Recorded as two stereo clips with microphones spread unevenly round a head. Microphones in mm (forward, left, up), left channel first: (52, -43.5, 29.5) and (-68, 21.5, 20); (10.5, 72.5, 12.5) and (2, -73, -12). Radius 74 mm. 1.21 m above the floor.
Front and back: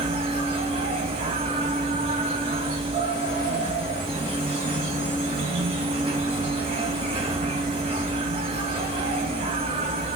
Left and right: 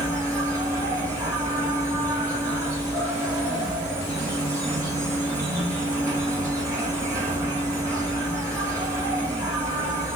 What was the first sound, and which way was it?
An insect, 160° right.